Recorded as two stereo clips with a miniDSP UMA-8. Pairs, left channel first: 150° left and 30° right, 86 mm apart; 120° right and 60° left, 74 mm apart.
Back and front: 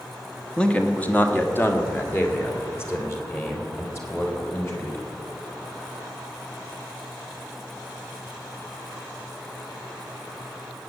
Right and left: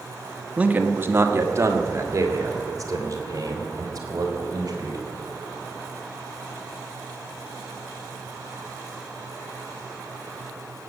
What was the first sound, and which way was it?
A man speaking, 90° left.